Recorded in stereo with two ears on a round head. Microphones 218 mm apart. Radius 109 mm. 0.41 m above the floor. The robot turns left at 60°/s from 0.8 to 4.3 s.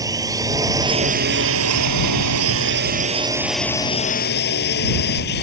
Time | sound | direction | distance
0.0 | a drone | 15° right | ?